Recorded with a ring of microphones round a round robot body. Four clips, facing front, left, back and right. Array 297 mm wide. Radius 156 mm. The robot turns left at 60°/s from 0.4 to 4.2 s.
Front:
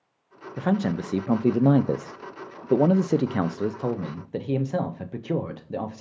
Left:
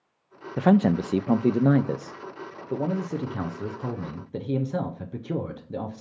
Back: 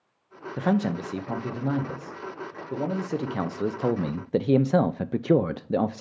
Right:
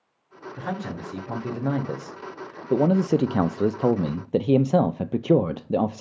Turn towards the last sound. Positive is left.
turn(degrees=-120)